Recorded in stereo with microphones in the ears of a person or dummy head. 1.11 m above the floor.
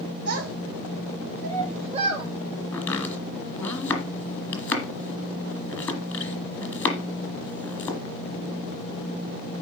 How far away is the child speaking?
About 2.5 m.